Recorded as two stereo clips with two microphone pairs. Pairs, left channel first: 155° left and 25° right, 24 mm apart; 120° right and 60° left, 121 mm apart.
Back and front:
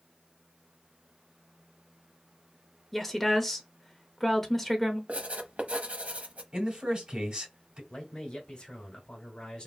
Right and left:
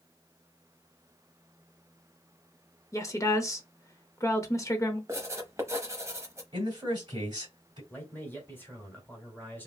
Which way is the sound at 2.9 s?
130° right.